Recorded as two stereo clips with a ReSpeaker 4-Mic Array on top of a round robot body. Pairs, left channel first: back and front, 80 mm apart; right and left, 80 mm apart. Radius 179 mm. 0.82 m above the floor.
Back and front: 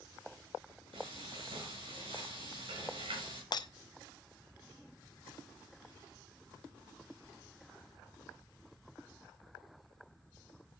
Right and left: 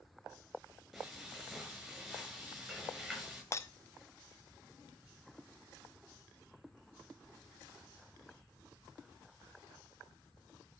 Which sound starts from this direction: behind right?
Breaking glass, at 3.5 s.